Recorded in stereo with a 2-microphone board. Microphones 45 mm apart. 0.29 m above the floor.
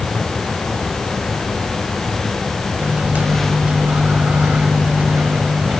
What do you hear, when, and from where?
2.8 s a microwave: 40° right (ahead or behind), 1.5 m